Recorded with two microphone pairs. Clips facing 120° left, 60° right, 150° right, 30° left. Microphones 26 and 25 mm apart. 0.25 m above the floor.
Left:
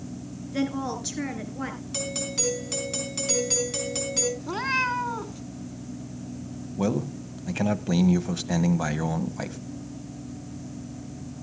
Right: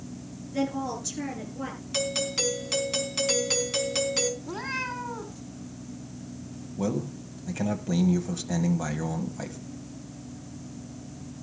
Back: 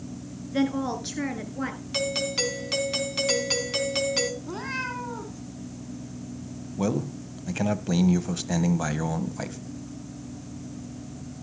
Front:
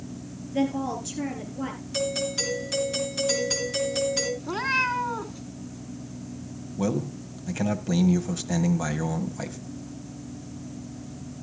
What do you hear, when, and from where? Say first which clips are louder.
0.5 s a woman speaking: left 1 dB, back 1 dB; straight behind, 3 m; by 1.8 s 175° left, 4 m
1.9 s a doorbell: right 5 dB, back 1 dB; 120° right, 3.5 m
4.4 s a cat meowing: left 6 dB, front 7 dB; 80° left, 1.3 m
6.8 s a man speaking: left 3 dB, even; 140° left, 1.0 m